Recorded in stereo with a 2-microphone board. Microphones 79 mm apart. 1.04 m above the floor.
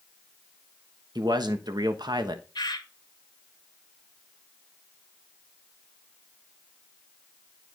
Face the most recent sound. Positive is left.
turn(degrees=65)  # may be behind; listen again after turning